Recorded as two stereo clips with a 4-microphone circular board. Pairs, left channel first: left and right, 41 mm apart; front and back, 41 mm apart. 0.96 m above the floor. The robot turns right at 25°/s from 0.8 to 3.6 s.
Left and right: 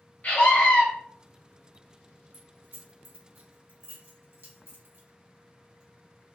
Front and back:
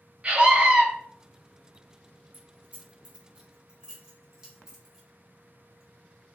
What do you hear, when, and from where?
0.2 s a scream: 130° left, 0.7 m
2.3 s keys jangling: 135° right, 0.9 m; by 6.3 s 105° right, 0.9 m